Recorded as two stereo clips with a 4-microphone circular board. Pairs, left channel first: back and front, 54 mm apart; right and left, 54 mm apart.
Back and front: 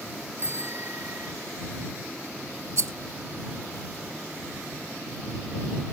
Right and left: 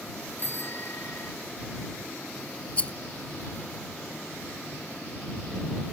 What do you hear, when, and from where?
0.4 s a bicycle bell: 45° right
2.8 s a rattle: 25° right